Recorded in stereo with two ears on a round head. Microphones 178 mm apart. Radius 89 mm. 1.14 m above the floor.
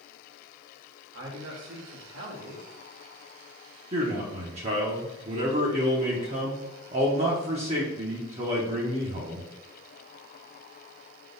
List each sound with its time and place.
1.1 s a man speaking: 65° right (ahead or behind), 2 m
3.9 s a man speaking: 35° right (ahead or behind), 1.1 m